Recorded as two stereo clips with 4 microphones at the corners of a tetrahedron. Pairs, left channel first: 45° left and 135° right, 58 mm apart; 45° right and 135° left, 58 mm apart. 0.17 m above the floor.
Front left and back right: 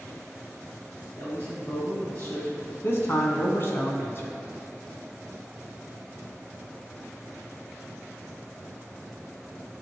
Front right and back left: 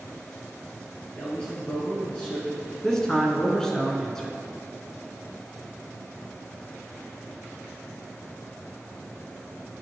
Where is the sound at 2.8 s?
30° left, 1.4 m.